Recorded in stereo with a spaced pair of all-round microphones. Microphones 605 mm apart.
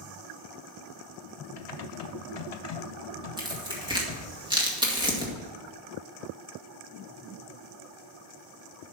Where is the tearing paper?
5° right (ahead or behind), 1.8 m.